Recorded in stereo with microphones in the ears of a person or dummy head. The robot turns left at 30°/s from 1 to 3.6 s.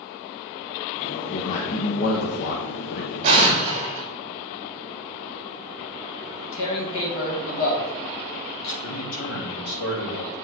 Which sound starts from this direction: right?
An explosion, at 3.2 s.